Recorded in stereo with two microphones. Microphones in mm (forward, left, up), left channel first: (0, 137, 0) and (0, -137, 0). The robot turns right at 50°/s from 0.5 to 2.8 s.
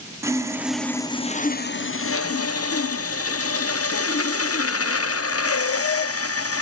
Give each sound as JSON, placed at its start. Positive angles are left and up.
{"t": 0.2, "sound": "sawing", "azimuth_deg": -10, "distance_m": 0.5}